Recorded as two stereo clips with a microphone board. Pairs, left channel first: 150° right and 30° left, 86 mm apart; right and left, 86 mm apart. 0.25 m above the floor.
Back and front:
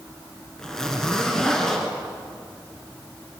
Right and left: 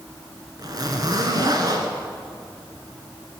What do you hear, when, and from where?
0.6 s a zipper: 130° left, 2 m